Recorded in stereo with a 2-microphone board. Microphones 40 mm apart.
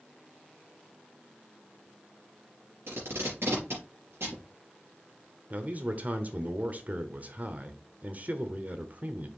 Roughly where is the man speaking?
Right.